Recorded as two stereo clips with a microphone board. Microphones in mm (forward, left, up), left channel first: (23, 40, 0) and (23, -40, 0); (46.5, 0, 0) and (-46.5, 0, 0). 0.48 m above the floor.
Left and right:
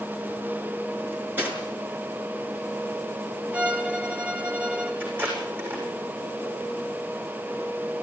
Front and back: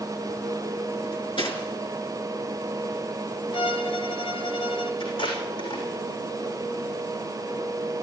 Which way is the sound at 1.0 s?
25° right.